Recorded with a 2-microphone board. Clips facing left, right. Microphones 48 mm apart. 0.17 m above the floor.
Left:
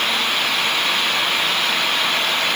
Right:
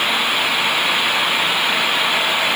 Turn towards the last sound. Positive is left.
No sound to turn to.